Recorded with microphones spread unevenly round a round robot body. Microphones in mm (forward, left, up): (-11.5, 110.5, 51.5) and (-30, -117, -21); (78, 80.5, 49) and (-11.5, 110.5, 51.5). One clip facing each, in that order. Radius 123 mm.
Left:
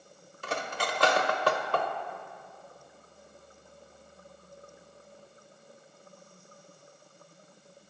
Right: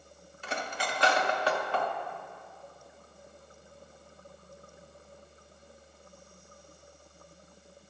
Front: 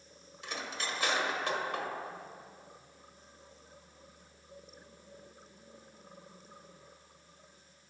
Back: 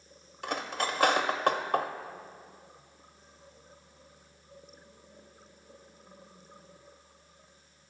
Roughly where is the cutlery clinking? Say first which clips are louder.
Left 2 dB, back 7 dB; behind left.